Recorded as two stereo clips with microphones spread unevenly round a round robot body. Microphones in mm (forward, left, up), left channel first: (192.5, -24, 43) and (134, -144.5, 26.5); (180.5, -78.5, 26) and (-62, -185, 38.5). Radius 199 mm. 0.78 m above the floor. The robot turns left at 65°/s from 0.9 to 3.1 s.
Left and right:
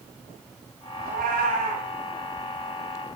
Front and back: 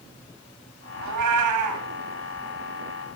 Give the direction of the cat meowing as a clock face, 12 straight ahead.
5 o'clock.